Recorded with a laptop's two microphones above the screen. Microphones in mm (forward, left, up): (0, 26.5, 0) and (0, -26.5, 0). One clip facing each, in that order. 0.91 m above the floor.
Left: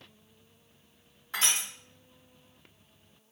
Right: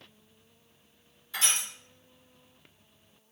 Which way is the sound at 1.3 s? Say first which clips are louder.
Left 1 dB; 60° left (ahead or behind).